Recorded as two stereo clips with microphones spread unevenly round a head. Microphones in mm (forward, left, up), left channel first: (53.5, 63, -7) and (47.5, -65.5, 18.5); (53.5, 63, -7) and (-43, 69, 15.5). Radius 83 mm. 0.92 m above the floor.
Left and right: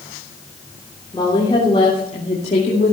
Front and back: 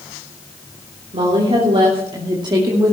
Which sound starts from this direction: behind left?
A woman speaking, at 1.1 s.